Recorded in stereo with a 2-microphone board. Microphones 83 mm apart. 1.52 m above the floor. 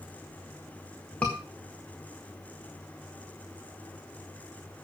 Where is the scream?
15° left (ahead or behind), 1.8 m.